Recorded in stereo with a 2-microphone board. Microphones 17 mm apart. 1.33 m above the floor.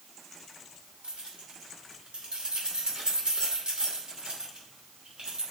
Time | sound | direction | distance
1.0 | keys jangling | 75° right (ahead or behind) | 2.5 m